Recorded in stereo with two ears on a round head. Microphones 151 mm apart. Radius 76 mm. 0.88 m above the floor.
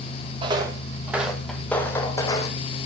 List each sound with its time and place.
0.4 s footsteps: 30° right (ahead or behind), 1.7 m; by 2.6 s 25° left (ahead or behind), 2.5 m